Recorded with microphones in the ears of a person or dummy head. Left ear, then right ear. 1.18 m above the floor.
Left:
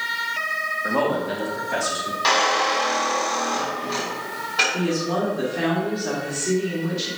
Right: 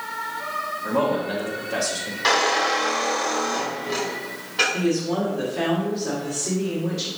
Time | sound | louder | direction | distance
0.8 | a man speaking | right 2 dB | 50° left (ahead or behind) | 2.0 m
2.2 | a squeak | even | 10° left (ahead or behind) | 3.5 m
4.7 | a woman speaking | even | 10° left (ahead or behind) | 2 m